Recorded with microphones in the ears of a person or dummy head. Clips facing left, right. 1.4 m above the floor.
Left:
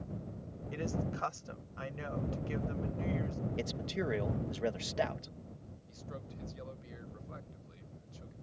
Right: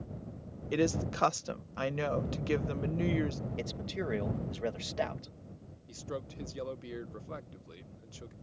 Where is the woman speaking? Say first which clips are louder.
Right 8 dB; 65° right (ahead or behind).